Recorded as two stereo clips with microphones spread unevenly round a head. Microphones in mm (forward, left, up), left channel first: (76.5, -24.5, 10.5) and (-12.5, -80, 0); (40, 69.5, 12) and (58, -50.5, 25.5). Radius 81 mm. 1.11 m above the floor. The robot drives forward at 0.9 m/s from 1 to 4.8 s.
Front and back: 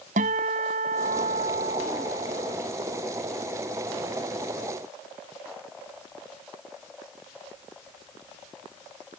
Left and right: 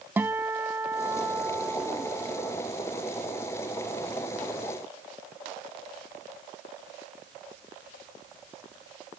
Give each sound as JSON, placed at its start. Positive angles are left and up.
{"t": 0.2, "sound": "a guitar", "azimuth_deg": -160}